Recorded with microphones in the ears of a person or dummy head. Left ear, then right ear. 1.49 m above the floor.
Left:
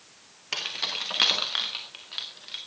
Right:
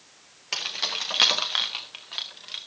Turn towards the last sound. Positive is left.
turn(degrees=-20)  # may be behind; listen again after turning